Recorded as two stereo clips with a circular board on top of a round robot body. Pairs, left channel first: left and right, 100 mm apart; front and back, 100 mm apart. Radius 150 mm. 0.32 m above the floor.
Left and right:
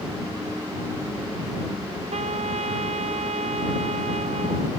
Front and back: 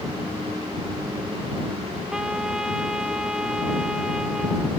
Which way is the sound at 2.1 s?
95° right.